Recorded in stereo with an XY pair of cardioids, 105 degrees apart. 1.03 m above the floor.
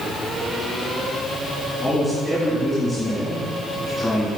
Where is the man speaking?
10° left, 2.0 m.